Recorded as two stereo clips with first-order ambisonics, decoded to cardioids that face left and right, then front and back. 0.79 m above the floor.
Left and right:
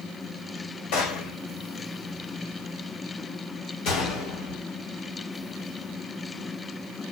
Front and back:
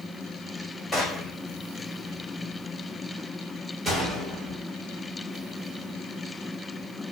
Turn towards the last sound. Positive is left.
turn(degrees=100)